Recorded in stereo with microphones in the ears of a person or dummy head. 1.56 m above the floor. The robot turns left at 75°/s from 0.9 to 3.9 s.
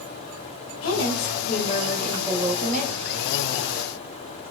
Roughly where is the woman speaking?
Left.